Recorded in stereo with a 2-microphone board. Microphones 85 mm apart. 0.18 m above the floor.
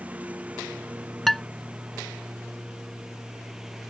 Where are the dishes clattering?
Centre (ahead or behind).